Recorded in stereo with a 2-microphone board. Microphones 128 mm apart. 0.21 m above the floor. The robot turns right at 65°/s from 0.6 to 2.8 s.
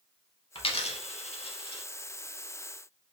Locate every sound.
0.6 s a dropped coin: 45° left (ahead or behind), 0.5 m; by 1.8 s 35° left (ahead or behind), 0.5 m